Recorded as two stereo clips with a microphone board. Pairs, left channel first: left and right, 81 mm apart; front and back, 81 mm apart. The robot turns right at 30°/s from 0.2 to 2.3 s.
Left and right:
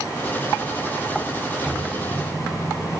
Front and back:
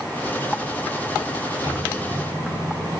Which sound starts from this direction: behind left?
A microwave, at 1.6 s.